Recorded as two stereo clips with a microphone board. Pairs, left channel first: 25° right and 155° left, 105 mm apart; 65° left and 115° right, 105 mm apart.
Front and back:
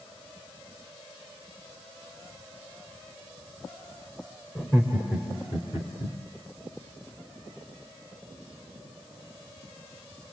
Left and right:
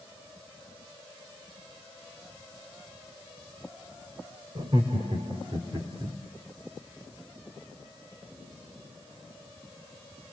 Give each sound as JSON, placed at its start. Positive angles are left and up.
{"t": 4.5, "sound": "laughter", "azimuth_deg": -80, "distance_m": 3.0}